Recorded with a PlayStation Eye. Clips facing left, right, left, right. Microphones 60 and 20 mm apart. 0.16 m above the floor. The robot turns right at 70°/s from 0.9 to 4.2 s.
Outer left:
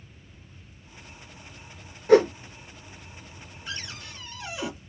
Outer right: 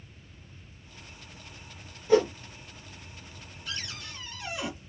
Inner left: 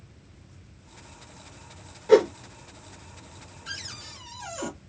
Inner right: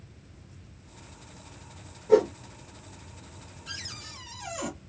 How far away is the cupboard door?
About 1.6 m.